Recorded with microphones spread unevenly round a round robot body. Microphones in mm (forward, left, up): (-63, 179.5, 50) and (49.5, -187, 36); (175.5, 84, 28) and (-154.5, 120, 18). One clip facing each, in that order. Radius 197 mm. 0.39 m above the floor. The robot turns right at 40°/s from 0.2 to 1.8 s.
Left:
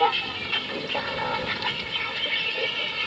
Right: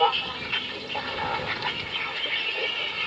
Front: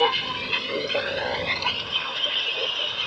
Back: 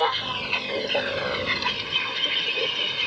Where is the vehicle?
45° left; by 3.1 s 115° left.